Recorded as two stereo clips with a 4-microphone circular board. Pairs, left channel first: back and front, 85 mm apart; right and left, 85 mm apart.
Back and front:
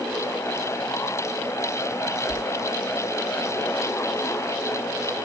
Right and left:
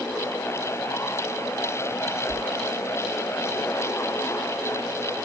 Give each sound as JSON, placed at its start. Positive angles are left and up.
{"t": 2.3, "sound": "a whoosh", "azimuth_deg": 45, "distance_m": 6.5}